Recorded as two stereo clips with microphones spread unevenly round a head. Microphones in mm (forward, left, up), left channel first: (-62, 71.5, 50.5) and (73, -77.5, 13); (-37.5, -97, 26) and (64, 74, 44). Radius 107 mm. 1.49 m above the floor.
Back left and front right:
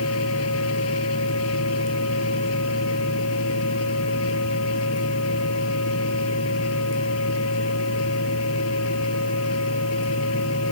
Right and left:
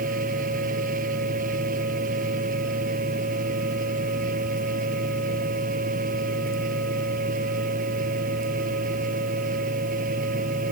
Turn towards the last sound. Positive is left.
turn(degrees=110)